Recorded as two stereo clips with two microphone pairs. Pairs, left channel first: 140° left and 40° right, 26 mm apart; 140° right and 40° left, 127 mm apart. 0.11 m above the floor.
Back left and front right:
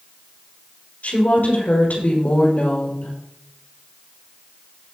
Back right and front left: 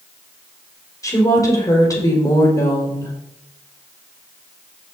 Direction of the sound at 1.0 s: 155° left.